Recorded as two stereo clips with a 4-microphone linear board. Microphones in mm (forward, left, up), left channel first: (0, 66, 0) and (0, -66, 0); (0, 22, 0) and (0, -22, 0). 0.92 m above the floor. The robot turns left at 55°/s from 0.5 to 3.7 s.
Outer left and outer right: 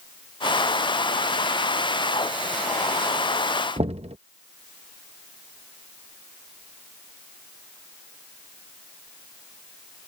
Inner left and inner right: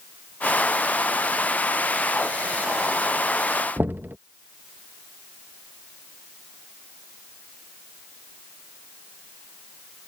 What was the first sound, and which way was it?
Knocking, 50° right (ahead or behind).